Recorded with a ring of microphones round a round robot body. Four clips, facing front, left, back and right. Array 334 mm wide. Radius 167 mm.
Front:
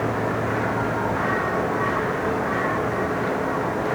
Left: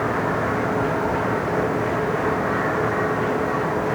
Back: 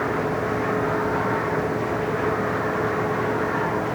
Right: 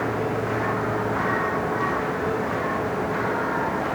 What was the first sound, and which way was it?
Only background noise.